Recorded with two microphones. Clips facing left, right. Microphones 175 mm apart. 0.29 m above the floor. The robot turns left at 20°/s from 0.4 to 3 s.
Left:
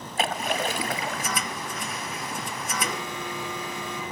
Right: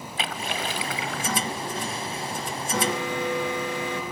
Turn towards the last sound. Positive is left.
turn(degrees=-70)  # may be behind; listen again after turning